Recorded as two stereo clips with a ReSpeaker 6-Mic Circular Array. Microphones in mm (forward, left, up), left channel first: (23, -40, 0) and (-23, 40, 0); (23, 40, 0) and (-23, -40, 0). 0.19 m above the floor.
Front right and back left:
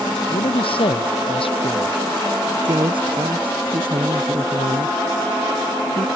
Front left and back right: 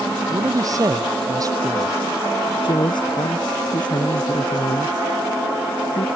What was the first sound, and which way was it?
A man speaking, 70° right.